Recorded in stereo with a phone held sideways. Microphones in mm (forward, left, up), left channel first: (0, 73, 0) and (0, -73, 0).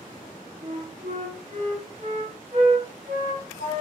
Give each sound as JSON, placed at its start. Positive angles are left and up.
{"t": 0.6, "sound": "a flute", "side_deg": -65, "distance_m": 0.8}